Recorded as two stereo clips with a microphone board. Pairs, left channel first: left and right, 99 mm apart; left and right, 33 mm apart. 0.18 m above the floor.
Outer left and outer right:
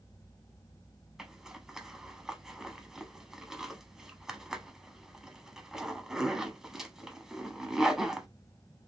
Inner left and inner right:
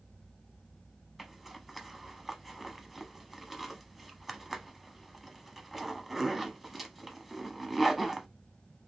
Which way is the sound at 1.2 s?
5° right (ahead or behind).